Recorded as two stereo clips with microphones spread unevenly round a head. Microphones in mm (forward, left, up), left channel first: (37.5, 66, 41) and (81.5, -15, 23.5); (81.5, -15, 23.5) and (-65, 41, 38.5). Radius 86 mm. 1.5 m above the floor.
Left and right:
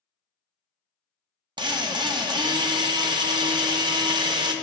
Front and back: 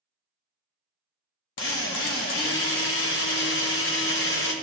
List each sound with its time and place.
1.6 s a drill: 20° right, 1.1 m